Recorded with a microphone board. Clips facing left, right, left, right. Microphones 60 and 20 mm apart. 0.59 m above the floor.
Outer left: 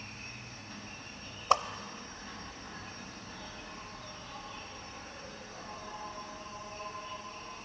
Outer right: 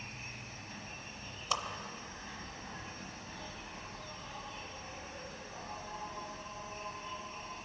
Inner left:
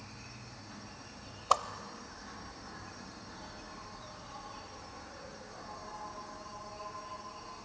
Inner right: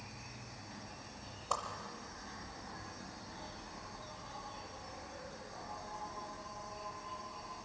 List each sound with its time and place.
0.0 s an insect: 5° right (ahead or behind), 2.5 m
1.5 s a whoosh: 40° left (ahead or behind), 0.6 m